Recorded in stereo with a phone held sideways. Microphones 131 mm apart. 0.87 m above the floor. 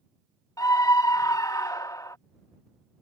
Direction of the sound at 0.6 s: 25° left (ahead or behind).